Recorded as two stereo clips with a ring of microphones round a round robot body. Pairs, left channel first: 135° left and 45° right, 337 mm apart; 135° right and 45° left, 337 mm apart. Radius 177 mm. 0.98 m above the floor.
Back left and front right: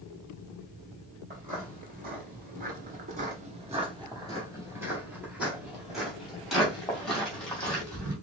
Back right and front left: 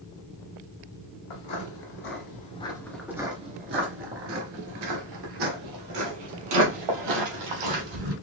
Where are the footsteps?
110° right, 1.4 m; by 8.1 s 50° left, 3 m.